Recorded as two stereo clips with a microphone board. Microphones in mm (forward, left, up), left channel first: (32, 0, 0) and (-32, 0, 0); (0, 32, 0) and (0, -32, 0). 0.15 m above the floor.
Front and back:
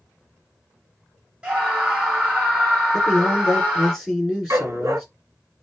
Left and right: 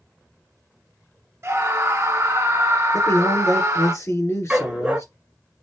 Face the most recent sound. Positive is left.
turn(degrees=-160)